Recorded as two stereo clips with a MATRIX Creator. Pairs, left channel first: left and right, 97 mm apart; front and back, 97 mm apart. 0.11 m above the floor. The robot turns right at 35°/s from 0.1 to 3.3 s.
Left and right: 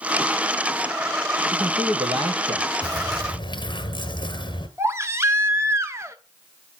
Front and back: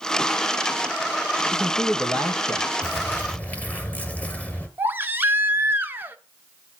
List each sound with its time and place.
1.5 s a man speaking: 100° right, 3.5 m; by 2.7 s 55° right, 3.5 m
2.8 s a bird: 55° left, 1.5 m; by 4.7 s 75° left, 1.5 m
4.8 s a baby crying: 130° right, 1.0 m